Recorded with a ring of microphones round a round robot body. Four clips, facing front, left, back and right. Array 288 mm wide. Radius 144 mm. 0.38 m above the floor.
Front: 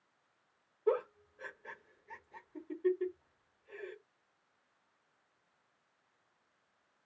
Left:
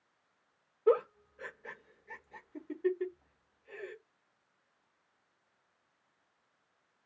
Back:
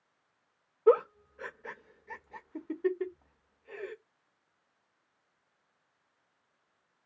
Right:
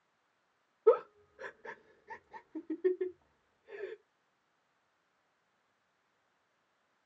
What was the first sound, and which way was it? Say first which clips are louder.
A giggle: right 1 dB, back 9 dB; 170° right.